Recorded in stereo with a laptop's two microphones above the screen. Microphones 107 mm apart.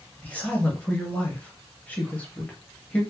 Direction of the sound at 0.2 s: 15° left (ahead or behind).